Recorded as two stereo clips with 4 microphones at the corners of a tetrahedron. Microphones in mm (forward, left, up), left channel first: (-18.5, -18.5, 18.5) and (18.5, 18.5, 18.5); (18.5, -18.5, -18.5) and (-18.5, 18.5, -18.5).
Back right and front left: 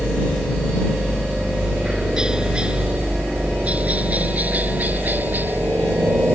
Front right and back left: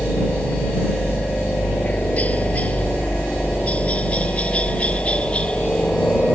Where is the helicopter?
55° right; by 6.4 s 15° left.